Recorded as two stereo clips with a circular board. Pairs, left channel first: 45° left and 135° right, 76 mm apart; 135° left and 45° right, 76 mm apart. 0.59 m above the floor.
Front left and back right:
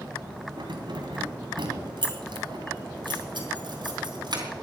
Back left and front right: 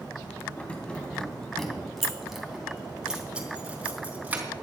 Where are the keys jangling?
150° right, 2.5 m; by 4.4 s 115° right, 3.5 m.